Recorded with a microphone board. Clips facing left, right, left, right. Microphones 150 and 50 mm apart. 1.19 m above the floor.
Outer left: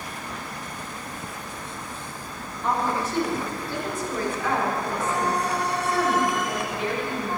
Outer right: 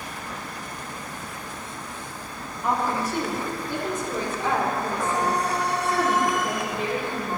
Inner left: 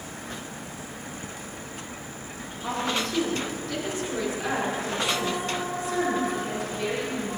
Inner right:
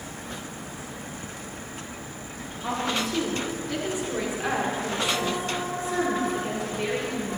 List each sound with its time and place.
2.6 s a woman speaking: 5° right (ahead or behind), 2.5 m; by 7.4 s 45° right (ahead or behind), 4 m